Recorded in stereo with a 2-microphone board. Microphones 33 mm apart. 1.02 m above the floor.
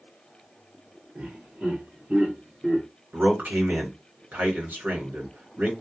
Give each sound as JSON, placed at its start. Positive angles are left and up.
{"t": 1.1, "sound": "laughter", "side_deg": -45, "distance_m": 1.2}
{"t": 3.1, "sound": "a man speaking", "side_deg": -70, "distance_m": 1.2}